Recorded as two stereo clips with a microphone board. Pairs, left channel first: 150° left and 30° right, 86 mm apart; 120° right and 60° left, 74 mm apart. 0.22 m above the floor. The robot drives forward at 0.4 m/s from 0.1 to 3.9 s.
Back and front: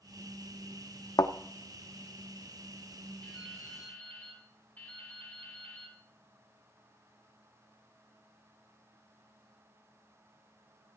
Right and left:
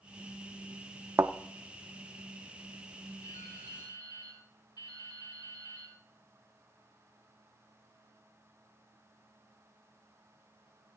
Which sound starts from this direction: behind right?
Dripping, at 3.2 s.